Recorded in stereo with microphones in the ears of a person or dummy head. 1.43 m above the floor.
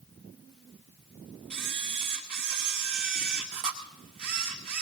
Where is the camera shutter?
45° right (ahead or behind), 1.6 m.